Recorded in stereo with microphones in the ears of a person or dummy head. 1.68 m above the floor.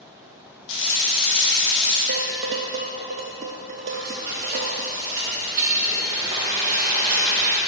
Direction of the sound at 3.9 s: 20° right (ahead or behind).